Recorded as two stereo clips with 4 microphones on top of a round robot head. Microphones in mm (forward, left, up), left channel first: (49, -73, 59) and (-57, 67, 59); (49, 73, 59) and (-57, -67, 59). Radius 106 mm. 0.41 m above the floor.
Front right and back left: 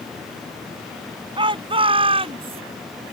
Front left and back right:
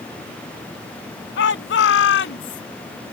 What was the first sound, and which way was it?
A shout, 65° left.